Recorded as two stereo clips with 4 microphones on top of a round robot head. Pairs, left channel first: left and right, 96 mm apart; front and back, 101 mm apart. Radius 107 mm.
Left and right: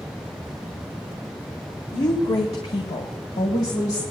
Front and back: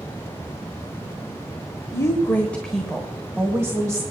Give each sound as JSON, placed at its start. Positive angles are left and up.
{"t": 1.9, "sound": "a woman speaking", "azimuth_deg": 60, "distance_m": 1.6}